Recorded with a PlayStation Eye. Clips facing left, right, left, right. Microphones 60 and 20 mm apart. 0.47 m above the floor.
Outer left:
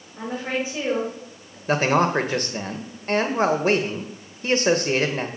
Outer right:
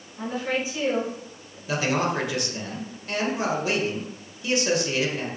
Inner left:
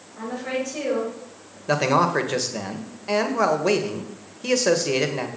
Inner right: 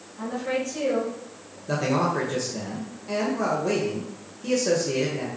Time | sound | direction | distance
0.2 | a woman speaking | 35° left (ahead or behind) | 6.5 m
1.7 | a man speaking | 45° left (ahead or behind) | 1.7 m